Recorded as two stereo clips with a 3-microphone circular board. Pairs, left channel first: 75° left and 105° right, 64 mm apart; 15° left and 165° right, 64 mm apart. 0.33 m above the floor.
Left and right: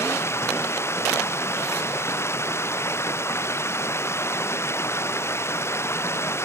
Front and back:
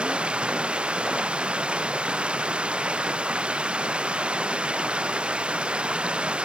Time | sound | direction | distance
0.0 | running water | 125° left | ?